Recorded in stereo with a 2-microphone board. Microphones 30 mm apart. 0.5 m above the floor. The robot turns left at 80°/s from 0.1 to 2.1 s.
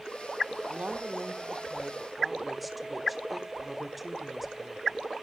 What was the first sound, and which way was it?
A woman speaking, 65° right.